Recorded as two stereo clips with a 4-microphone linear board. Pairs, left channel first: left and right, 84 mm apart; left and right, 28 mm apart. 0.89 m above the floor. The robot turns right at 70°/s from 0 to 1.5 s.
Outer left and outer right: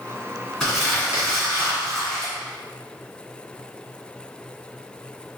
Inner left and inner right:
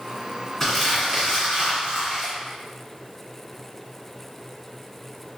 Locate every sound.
0.6 s crumpling: straight behind, 2.0 m; by 2.3 s 120° right, 2.0 m